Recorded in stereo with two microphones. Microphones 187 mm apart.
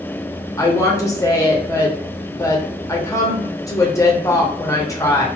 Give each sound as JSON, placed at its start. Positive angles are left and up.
{"t": 0.6, "sound": "a woman speaking", "side_deg": 20, "distance_m": 0.8}